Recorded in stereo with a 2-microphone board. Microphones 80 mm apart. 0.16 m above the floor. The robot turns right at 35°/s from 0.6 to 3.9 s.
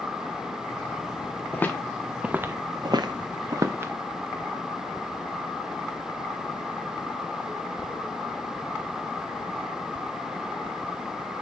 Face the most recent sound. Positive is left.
turn(degrees=-30)  # may be behind; listen again after turning